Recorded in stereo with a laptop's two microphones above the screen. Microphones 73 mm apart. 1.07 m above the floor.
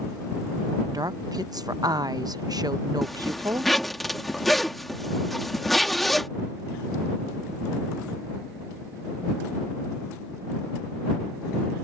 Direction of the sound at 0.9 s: 65° right (ahead or behind).